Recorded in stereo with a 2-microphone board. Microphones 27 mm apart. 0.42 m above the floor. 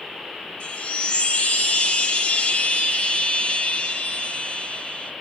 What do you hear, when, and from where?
0.6 s a chime: 50° left (ahead or behind), 0.7 m